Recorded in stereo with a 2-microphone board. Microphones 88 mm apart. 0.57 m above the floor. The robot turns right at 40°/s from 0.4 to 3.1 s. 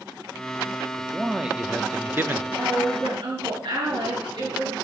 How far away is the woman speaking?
About 8 m.